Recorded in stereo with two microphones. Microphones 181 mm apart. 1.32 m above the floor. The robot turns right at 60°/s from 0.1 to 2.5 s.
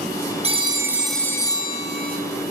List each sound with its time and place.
0.4 s a phone ringing: 40° right, 1.2 m; by 2.2 s 65° left, 1.2 m